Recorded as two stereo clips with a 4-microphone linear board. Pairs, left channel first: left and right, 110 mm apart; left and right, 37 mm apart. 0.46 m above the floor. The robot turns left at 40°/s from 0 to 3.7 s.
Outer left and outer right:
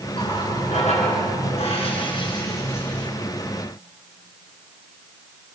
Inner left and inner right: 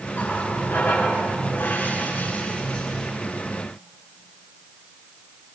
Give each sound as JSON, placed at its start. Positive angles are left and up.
{"t": 0.1, "sound": "a running tap", "azimuth_deg": 125, "distance_m": 4.0}